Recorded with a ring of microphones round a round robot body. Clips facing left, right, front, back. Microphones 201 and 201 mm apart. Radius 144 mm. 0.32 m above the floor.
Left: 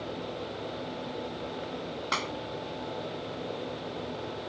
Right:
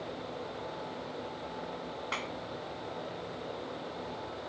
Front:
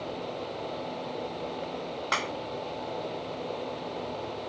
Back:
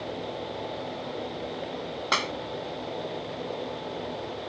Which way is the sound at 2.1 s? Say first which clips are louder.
Left 4 dB, back 4 dB; 140° left.